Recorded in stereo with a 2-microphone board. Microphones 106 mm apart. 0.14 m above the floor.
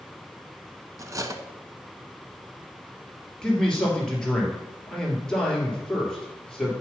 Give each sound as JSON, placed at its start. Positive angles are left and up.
{"t": 1.0, "sound": "cutlery clinking", "side_deg": -35, "distance_m": 0.8}
{"t": 3.4, "sound": "a man speaking", "side_deg": 5, "distance_m": 3.0}